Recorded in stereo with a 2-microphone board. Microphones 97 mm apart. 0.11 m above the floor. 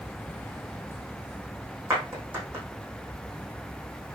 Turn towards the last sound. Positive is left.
turn(degrees=-25)  # may be behind; listen again after turning